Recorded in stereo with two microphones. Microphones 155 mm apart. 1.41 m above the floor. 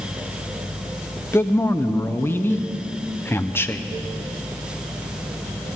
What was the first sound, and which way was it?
A man speaking, 15° left (ahead or behind).